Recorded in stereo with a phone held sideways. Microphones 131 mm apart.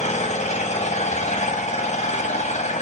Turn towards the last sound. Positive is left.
turn(degrees=60)  # may be behind; listen again after turning